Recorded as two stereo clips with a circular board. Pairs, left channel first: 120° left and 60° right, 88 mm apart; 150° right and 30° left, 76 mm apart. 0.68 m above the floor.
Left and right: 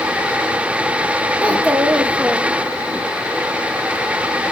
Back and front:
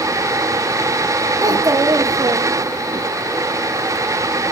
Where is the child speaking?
10° left, 0.9 m.